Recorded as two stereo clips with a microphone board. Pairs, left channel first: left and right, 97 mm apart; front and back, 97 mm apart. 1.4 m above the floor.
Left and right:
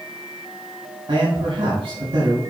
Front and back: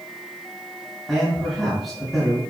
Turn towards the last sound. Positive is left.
turn(degrees=-90)